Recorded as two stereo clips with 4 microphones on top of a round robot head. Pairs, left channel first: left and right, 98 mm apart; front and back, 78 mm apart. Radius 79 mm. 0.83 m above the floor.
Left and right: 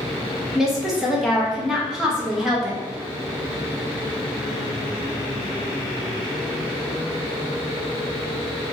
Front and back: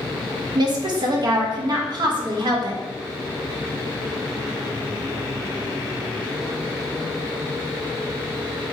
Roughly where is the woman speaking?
Behind.